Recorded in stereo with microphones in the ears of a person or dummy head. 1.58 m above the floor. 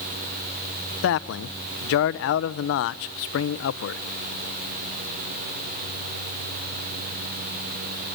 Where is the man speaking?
65° left (ahead or behind), 0.7 m.